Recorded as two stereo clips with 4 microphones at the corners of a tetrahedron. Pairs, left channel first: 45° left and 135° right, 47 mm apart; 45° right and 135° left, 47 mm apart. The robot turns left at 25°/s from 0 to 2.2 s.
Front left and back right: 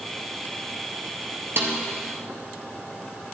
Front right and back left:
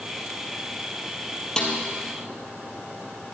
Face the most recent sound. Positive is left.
turn(degrees=-130)